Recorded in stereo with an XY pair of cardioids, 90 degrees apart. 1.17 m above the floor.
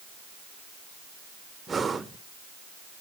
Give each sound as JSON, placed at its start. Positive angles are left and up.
{"t": 1.7, "sound": "breathing", "azimuth_deg": -35, "distance_m": 1.2}